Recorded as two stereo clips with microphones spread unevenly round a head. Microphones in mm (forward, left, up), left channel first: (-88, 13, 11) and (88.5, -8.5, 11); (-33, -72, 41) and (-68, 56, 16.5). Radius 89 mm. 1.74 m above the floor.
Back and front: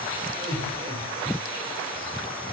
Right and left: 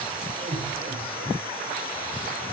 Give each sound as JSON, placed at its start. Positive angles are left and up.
{"t": 0.4, "sound": "laughter", "azimuth_deg": 55, "distance_m": 9.5}